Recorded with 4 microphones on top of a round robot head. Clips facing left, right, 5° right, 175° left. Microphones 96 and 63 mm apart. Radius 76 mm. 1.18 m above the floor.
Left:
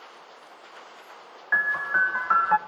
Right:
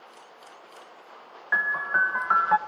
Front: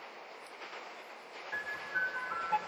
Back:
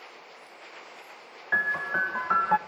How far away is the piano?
About 0.7 m.